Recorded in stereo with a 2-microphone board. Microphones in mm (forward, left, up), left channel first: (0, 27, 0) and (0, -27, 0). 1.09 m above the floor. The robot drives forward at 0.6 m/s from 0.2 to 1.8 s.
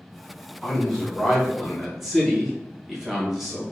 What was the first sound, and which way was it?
A man speaking, 5° right (ahead or behind).